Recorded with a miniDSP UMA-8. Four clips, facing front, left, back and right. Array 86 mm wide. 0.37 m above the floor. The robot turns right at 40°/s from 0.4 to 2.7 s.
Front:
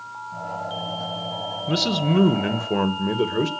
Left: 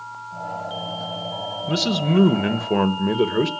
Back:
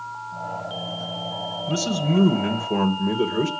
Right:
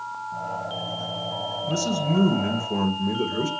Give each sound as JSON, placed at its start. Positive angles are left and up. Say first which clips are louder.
{"t": 1.7, "sound": "a man speaking", "louder": "left 4 dB, front 1 dB", "azimuth_deg": 35, "distance_m": 1.1}